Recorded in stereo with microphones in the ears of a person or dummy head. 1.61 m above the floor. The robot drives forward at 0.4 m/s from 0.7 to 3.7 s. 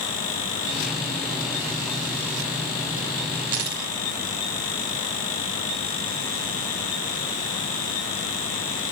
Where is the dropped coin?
25° right (ahead or behind), 1.5 m.